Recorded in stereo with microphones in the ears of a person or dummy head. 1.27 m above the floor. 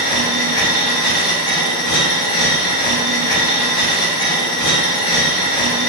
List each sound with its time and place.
0.0 s a machine running: 50° left (ahead or behind), 1.3 m